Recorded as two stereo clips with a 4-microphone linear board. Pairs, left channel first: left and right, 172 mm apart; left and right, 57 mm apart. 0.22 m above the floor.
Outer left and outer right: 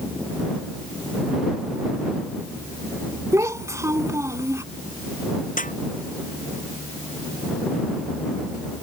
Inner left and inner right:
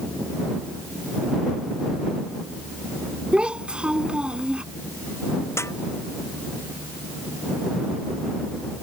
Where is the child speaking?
15° right (ahead or behind).